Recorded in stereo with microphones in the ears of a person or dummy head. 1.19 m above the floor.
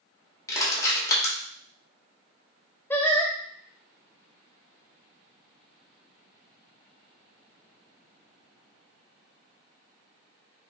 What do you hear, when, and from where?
0.5 s crushing: 20° left (ahead or behind), 1.7 m
2.9 s singing: 5° left (ahead or behind), 0.5 m